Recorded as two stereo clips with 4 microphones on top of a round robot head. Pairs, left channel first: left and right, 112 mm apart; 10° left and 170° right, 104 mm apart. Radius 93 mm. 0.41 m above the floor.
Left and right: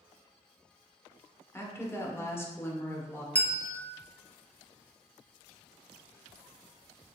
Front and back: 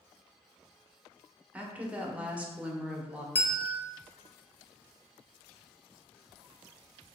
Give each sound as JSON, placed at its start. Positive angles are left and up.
{"t": 1.5, "sound": "a woman speaking", "azimuth_deg": 130, "distance_m": 1.0}
{"t": 3.4, "sound": "a bell", "azimuth_deg": 45, "distance_m": 1.0}